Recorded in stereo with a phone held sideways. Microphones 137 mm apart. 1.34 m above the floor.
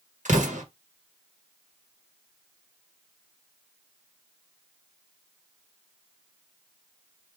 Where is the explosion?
65° right (ahead or behind), 1.4 m.